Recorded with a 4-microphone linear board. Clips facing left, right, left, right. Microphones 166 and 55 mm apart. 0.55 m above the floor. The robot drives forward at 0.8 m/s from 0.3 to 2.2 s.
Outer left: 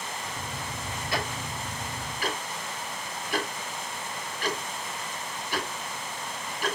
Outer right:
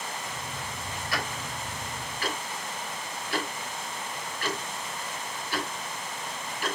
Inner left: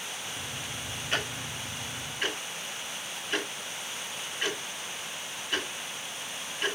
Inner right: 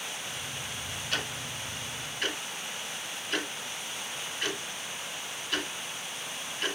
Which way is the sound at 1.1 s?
25° left (ahead or behind).